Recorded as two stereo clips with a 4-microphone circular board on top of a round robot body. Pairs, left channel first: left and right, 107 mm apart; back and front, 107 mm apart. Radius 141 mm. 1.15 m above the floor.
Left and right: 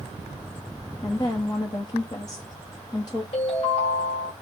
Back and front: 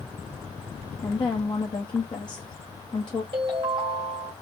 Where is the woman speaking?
140° left, 0.9 m.